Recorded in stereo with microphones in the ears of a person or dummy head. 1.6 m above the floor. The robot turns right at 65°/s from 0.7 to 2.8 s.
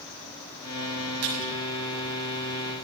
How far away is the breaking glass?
I don't hear breaking glass.